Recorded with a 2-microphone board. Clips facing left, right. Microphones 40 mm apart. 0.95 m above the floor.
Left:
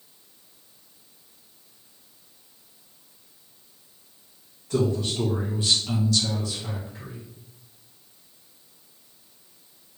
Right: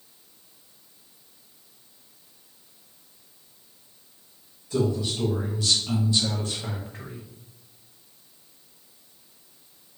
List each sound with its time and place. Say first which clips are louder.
4.7 s a man speaking: left 1 dB; 65° left (ahead or behind), 1.2 m; by 7.3 s 65° right (ahead or behind), 1.3 m